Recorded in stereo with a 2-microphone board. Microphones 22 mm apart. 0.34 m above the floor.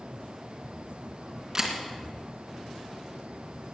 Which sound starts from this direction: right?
A camera shutter, at 1.6 s.